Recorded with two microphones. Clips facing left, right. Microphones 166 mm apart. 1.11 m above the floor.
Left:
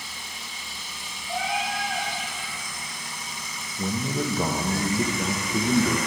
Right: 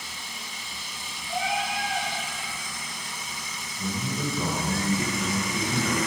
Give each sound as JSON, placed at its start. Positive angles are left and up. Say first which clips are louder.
{"t": 1.3, "sound": "a cat meowing", "louder": "even", "side_deg": 30, "distance_m": 2.5}
{"t": 3.8, "sound": "a man speaking", "louder": "left 3 dB", "side_deg": 55, "distance_m": 0.8}